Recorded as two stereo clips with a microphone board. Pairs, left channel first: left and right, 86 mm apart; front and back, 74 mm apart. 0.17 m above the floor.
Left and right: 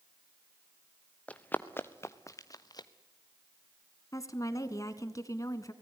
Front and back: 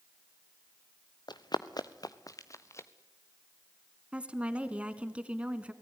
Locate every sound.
1.3 s running footsteps: 15° left, 1.7 m; by 2.9 s 50° left, 1.5 m
4.1 s a woman speaking: 115° left, 1.4 m